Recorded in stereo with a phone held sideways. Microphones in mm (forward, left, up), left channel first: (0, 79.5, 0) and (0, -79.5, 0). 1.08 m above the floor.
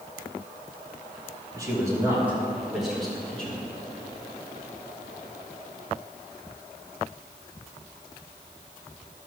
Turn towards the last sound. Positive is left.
turn(degrees=10)  # may be behind; listen again after turning